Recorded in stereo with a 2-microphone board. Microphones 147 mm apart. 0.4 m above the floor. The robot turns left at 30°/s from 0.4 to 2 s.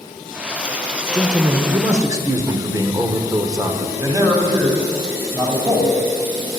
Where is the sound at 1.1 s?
25° right (ahead or behind), 1.0 m; by 3.9 s 20° right (ahead or behind), 1.0 m.